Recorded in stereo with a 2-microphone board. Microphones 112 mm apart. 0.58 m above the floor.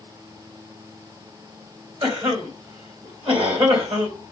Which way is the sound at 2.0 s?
50° right (ahead or behind).